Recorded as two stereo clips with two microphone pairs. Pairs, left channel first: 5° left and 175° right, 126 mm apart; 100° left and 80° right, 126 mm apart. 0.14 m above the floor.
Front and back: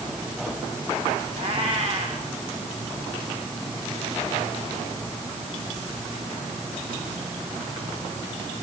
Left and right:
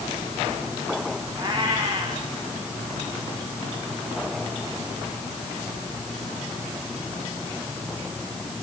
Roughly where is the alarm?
No alarm in this recording.